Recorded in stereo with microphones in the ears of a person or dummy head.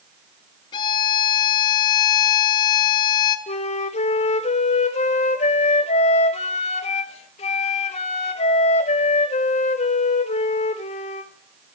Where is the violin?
25° left (ahead or behind), 0.6 m.